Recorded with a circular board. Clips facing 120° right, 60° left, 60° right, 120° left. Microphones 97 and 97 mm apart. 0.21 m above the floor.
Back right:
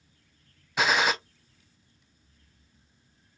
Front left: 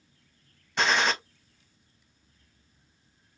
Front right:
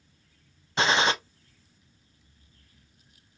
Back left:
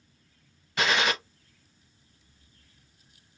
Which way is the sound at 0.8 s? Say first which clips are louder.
Back right 1 dB, front right 2 dB; 40° right.